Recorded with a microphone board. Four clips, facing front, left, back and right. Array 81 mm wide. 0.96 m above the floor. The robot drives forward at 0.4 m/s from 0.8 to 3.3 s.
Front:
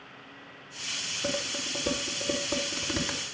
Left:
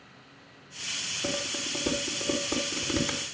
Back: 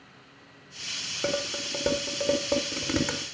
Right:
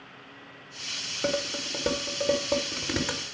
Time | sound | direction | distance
1.2 | dishes clattering | 145° right | 3 m